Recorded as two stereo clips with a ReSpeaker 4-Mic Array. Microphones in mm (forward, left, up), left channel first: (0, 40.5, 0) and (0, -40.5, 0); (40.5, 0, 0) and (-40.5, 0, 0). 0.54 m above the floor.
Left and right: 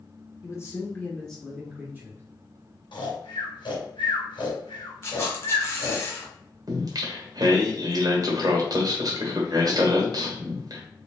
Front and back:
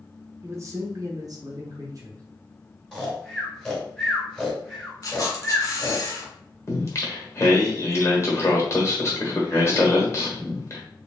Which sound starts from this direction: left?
Snoring, at 2.9 s.